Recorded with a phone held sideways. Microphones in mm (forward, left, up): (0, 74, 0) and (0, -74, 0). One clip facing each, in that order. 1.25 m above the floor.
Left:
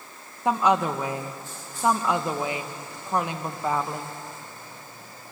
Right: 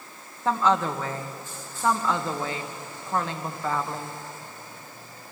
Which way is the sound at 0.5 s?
15° left (ahead or behind).